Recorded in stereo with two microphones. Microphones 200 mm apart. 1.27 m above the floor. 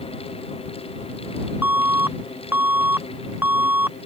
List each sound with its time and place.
1.6 s an alarm: 10° right (ahead or behind)